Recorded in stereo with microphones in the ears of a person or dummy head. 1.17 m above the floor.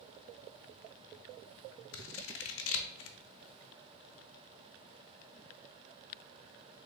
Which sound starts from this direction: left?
Scissors, at 1.9 s.